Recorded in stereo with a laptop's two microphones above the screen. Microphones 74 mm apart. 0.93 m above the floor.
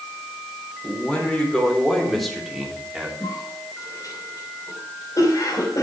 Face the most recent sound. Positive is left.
turn(degrees=50)  # may be behind; listen again after turning